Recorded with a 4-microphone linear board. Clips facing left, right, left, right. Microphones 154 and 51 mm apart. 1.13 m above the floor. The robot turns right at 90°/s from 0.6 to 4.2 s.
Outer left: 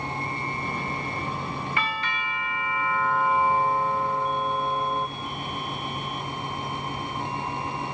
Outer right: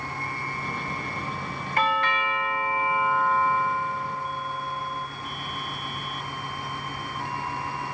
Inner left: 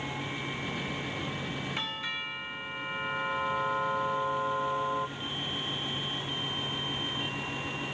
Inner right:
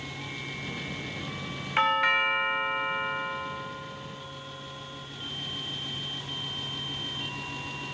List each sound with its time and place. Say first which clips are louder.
1.8 s a doorbell: outer right 5 dB, inner right 12 dB; 130° right; by 5.1 s 90° left